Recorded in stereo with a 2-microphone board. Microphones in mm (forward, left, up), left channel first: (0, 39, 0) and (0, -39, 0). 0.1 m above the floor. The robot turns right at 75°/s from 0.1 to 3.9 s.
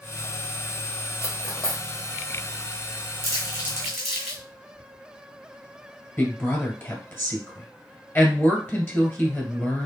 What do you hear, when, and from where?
1.2 s cutlery clinking: 35° left (ahead or behind), 1.4 m; by 1.8 s centre (ahead or behind), 1.4 m
3.2 s crumpling: 50° right (ahead or behind), 2.5 m; by 4.4 s centre (ahead or behind), 2.5 m
6.2 s a woman speaking: 30° left (ahead or behind), 1.8 m